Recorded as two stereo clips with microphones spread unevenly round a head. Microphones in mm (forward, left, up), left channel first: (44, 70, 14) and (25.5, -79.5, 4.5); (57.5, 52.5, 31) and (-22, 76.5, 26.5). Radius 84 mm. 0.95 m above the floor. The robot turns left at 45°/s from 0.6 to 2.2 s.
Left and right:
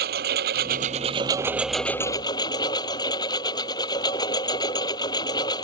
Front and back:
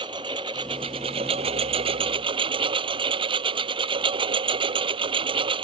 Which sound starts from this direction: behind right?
A lawn mower, at 0.0 s.